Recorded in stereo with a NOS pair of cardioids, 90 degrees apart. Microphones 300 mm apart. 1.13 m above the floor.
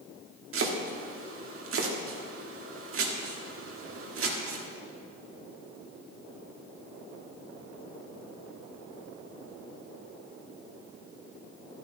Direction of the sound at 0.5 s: 45° right.